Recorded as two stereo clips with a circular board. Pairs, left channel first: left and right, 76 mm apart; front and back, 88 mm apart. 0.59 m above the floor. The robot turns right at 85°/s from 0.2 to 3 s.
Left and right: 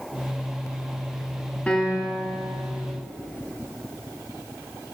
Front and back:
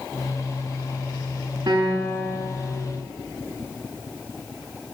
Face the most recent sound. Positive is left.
turn(degrees=-85)